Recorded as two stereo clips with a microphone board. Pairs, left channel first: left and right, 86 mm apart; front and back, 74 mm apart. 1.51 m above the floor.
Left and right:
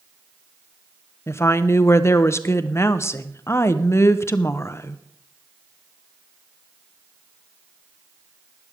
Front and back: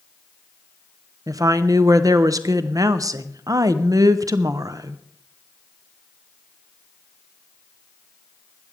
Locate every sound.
1.3 s a woman speaking: 145° left, 0.7 m